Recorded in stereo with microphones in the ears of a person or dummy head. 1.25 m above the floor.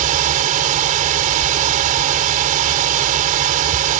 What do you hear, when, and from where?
0.0 s a fan: 45° right (ahead or behind)